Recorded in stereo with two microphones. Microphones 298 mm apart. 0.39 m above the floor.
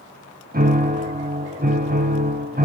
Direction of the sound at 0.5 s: 30° right (ahead or behind).